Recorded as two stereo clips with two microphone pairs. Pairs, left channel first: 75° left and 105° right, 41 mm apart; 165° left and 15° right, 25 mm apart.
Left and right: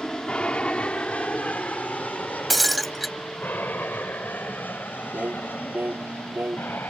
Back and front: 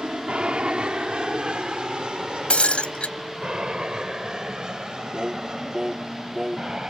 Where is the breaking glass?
165° left.